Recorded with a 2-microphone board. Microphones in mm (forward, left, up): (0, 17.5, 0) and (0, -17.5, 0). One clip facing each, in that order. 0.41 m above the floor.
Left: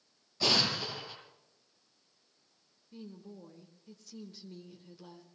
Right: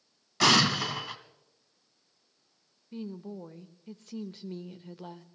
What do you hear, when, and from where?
0.4 s an explosion: 85° right, 1.7 m
2.9 s a woman speaking: 40° right (ahead or behind), 1.0 m